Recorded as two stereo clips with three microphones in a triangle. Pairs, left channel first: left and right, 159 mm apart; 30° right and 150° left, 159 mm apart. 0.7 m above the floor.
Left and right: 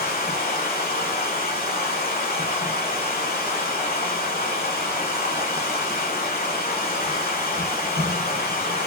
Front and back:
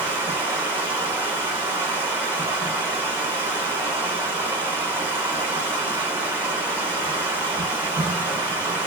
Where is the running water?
75° left, 1.4 m.